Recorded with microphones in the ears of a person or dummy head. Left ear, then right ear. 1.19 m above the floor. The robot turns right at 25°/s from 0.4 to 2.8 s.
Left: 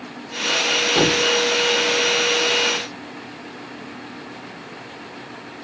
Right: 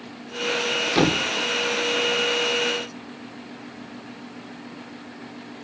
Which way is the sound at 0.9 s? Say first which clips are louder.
Left 1 dB; 10° right (ahead or behind).